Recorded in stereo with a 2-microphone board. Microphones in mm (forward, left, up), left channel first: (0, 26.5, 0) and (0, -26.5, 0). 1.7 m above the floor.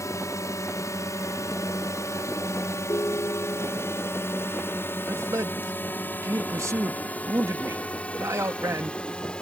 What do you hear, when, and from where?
0.0 s a drone: 80° left; by 9.4 s 20° left (ahead or behind)
2.9 s a ringtone: 65° left (ahead or behind)
5.1 s a man speaking: 75° right (ahead or behind)